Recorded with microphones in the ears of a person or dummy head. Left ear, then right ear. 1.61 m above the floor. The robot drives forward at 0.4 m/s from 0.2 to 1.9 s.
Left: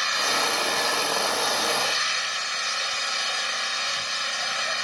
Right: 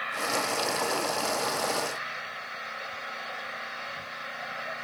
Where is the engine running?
75° left (ahead or behind); by 4.8 s 70° left (ahead or behind).